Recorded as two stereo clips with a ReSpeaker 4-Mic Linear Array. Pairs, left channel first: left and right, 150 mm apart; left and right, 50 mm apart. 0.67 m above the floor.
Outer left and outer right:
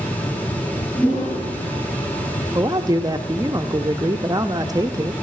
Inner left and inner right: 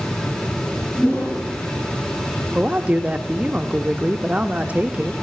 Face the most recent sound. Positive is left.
turn(degrees=-25)  # may be behind; listen again after turning